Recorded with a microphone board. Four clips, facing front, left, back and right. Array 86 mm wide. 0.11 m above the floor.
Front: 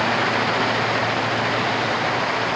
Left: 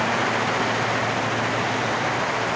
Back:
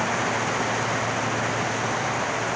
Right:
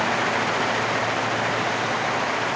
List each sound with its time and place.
Only background noise.